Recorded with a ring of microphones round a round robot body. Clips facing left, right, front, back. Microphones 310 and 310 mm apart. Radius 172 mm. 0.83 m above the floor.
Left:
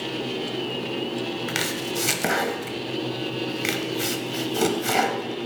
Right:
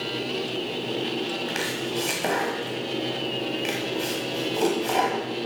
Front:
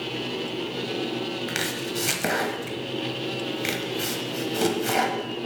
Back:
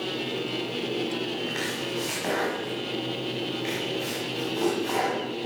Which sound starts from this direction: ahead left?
Chopping, at 1.5 s.